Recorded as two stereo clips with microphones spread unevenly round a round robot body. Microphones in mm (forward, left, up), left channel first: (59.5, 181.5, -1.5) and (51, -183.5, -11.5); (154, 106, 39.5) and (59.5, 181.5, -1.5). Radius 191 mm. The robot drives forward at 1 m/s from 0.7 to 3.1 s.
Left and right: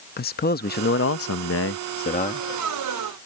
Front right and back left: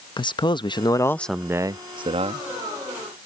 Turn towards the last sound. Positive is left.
turn(degrees=170)